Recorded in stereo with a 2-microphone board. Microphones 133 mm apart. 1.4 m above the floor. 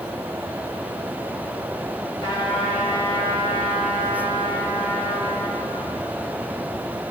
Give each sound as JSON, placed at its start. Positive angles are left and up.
{"t": 2.2, "sound": "a trumpet", "side_deg": 40, "distance_m": 8.0}